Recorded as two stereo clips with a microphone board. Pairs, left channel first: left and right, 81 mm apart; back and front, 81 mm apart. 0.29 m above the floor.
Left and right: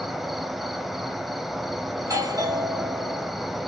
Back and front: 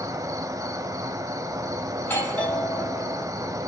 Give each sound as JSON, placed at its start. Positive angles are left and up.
{"t": 0.0, "sound": "an insect", "azimuth_deg": 0, "distance_m": 0.7}
{"t": 2.0, "sound": "a doorbell", "azimuth_deg": -120, "distance_m": 2.0}